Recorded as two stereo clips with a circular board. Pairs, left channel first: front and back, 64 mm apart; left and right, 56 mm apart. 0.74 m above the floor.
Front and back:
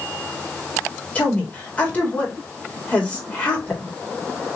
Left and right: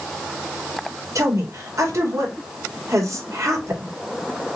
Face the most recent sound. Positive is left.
turn(degrees=-65)